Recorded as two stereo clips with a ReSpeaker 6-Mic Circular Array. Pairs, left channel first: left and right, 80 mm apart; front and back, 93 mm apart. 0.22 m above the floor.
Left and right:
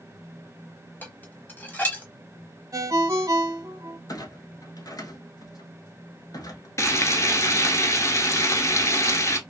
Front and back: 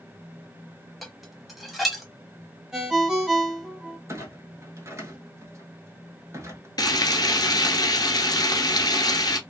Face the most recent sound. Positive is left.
turn(degrees=40)